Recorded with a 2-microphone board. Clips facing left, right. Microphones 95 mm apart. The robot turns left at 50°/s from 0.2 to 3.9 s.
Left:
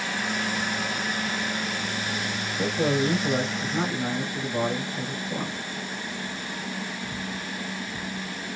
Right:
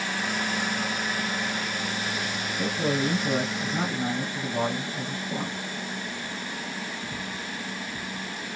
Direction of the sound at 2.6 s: 60° left.